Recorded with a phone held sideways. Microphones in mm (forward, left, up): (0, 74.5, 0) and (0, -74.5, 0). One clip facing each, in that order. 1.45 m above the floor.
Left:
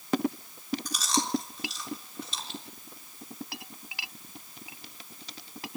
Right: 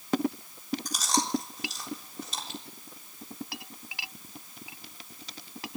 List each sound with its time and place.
0.8 s chewing: 45° right (ahead or behind), 3.5 m